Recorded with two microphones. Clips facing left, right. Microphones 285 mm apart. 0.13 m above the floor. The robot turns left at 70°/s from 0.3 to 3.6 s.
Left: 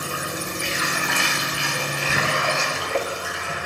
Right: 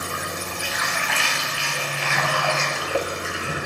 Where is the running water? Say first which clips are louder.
Left 2 dB; 175° left, 1.3 m; by 3.7 s 55° right, 1.3 m.